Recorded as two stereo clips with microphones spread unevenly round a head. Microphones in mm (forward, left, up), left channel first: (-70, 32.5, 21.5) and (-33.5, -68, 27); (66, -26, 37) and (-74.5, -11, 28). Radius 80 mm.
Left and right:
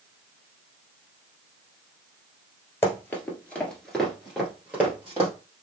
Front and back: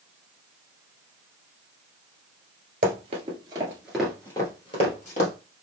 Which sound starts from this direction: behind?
Running footsteps, at 2.8 s.